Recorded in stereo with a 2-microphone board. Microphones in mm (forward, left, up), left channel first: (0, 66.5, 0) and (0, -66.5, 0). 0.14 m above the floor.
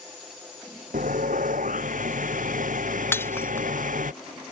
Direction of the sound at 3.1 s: 15° left (ahead or behind).